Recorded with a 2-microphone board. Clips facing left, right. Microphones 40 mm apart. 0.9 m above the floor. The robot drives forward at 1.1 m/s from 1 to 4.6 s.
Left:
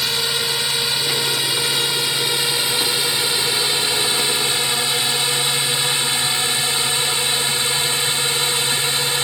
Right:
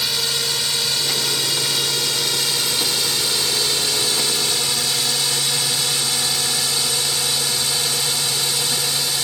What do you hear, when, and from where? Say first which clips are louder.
0.0 s a drone: left 2 dB; 15° left (ahead or behind); by 9.2 s 35° left (ahead or behind)